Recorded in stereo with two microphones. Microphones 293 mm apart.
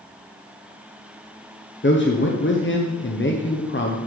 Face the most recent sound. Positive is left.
turn(degrees=40)  # may be behind; listen again after turning